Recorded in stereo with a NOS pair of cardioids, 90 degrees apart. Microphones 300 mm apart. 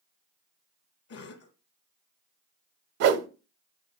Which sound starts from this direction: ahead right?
A whoosh, at 3.0 s.